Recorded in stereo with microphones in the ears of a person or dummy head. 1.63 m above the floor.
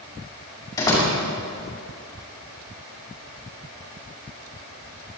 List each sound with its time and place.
0.8 s a door slam: 20° left (ahead or behind), 6.5 m